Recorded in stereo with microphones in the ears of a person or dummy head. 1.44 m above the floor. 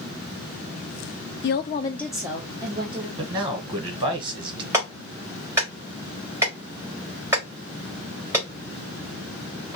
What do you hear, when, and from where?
1.4 s a woman speaking: 50° left (ahead or behind), 0.5 m; by 3.1 s 30° right (ahead or behind), 1.3 m
3.2 s a man speaking: 25° right (ahead or behind), 1.0 m
4.7 s a clap: 15° right (ahead or behind), 1.7 m